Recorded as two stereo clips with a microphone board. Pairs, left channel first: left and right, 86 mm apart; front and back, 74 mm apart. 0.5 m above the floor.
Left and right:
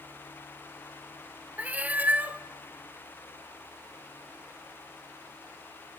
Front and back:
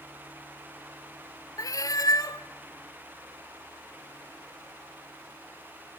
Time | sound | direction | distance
1.6 | a cat meowing | 20° right | 0.6 m